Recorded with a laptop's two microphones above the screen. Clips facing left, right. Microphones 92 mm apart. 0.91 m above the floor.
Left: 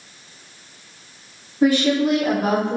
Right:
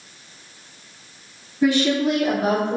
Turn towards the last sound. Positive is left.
turn(degrees=45)  # may be behind; listen again after turning